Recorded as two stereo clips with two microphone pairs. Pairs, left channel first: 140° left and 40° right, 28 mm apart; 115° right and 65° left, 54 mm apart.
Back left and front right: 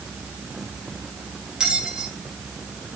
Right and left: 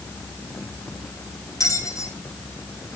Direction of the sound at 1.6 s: 105° right.